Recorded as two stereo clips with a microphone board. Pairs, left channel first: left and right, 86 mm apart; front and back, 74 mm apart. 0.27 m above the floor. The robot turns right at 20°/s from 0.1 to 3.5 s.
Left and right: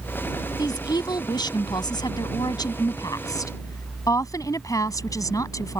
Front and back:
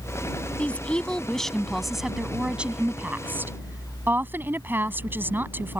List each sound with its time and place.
0.6 s a woman speaking: 70° left; by 5.8 s 125° left